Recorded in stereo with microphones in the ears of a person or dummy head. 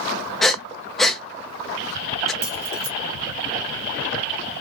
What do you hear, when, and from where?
0.4 s breathing: centre (ahead or behind), 0.5 m
2.4 s keys jangling: 70° right (ahead or behind), 1.5 m